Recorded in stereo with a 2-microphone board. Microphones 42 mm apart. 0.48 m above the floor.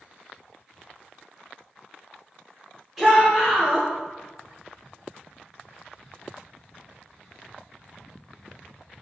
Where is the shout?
5° right (ahead or behind), 1.0 m.